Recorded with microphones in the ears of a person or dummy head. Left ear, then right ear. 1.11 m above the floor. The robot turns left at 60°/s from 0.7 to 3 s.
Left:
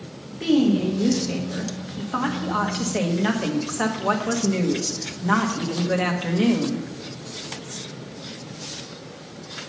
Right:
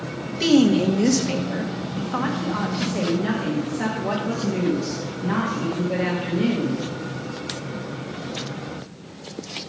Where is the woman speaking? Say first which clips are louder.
Right 3 dB; 90° right, 1.3 m; by 6.9 s 130° left, 1.3 m.